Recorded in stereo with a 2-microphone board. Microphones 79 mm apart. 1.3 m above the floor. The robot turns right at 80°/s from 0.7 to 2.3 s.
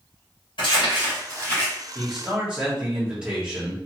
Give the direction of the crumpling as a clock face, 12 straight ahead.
9 o'clock.